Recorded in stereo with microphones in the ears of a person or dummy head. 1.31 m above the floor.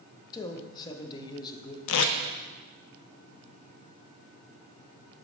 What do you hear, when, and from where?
0.3 s a man speaking: 20° left (ahead or behind), 0.7 m
1.9 s tape being pulled: 80° left, 0.5 m